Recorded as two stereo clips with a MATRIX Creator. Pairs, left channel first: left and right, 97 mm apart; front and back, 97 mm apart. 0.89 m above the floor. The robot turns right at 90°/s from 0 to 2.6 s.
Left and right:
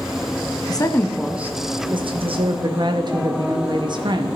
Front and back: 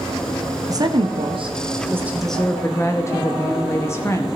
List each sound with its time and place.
0.7 s a woman speaking: 130° left, 0.9 m; by 4.4 s 60° right, 0.9 m